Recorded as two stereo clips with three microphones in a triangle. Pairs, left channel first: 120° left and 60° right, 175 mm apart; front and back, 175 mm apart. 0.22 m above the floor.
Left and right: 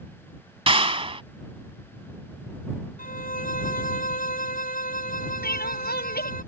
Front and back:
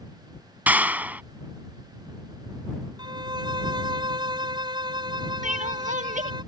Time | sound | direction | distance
0.7 | a clap | 105° right | ?
3.0 | a violin | 125° left | ?
5.4 | crying | 140° left | ?